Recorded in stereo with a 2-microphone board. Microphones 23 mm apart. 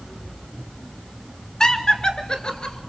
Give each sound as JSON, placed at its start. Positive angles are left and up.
{"t": 1.6, "sound": "laughter", "side_deg": 25, "distance_m": 1.8}